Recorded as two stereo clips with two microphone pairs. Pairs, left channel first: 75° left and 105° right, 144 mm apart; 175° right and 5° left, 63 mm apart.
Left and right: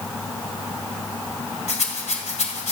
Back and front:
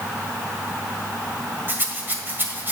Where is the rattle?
55° left, 1.7 m.